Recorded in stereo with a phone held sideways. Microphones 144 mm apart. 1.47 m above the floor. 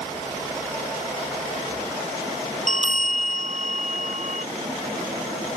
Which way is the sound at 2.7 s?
60° right (ahead or behind).